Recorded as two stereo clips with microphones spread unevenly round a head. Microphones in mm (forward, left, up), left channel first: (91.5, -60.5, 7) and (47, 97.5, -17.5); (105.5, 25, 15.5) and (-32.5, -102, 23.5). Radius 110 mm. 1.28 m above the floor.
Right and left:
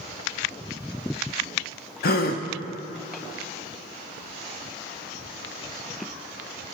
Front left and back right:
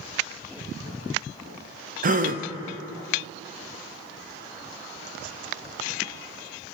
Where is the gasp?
95° right, 0.6 m.